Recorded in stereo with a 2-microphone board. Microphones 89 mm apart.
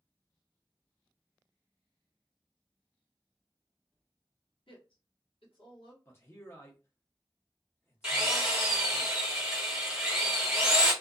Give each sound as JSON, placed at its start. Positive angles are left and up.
{"t": 4.7, "sound": "a woman speaking", "side_deg": 75, "distance_m": 1.0}
{"t": 6.0, "sound": "a man speaking", "side_deg": 25, "distance_m": 0.7}
{"t": 8.0, "sound": "a drill", "side_deg": -10, "distance_m": 1.1}